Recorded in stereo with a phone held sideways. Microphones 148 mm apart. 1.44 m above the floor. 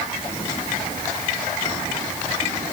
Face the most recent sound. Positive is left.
No sound to turn to.